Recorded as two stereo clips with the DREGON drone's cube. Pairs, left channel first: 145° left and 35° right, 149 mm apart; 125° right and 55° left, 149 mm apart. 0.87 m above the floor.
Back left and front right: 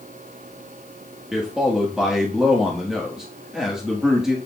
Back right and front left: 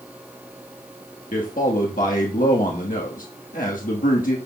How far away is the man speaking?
About 1.2 m.